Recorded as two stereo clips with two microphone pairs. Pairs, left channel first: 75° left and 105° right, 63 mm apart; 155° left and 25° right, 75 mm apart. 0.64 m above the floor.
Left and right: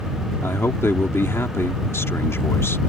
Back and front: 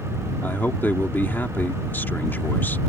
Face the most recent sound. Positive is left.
turn(degrees=100)